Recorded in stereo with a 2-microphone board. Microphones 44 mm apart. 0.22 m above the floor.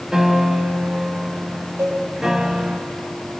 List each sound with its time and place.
0.1 s a piano: 10° right (ahead or behind), 1.3 m
1.8 s a cowbell: 65° right (ahead or behind), 6 m